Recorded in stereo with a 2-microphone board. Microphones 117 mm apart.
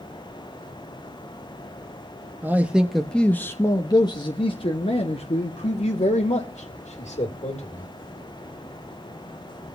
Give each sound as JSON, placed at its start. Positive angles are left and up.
{"t": 2.4, "sound": "a man speaking", "side_deg": -15, "distance_m": 0.9}